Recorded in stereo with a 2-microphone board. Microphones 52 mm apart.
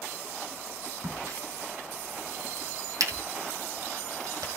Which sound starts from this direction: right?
A crack, at 1.0 s.